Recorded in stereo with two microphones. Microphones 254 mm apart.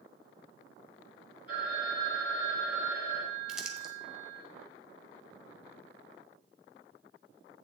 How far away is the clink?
I don't hear a clink.